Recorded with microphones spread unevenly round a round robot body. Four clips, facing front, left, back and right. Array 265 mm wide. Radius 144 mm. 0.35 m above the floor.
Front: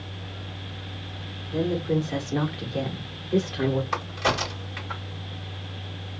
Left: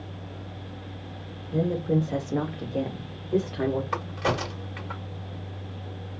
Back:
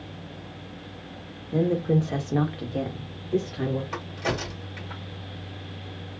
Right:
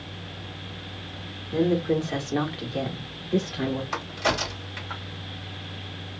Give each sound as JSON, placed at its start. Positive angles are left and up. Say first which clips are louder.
{"t": 1.5, "sound": "a woman speaking", "louder": "right 2 dB, back 2 dB", "azimuth_deg": -170, "distance_m": 1.5}
{"t": 3.9, "sound": "a crack", "louder": "even, front 4 dB", "azimuth_deg": 55, "distance_m": 2.0}